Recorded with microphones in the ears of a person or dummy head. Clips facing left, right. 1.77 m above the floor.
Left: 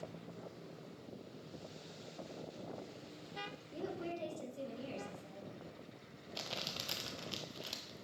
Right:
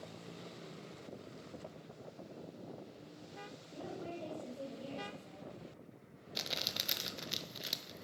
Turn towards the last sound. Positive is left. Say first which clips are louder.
# right 1 dB
turn(degrees=-25)  # may be behind; listen again after turning